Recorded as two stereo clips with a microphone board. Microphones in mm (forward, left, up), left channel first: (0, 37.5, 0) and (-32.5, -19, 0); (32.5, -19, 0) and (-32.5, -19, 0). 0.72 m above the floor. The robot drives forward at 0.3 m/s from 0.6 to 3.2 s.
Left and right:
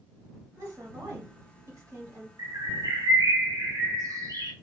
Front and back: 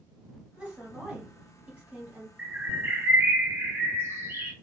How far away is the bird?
About 0.6 m.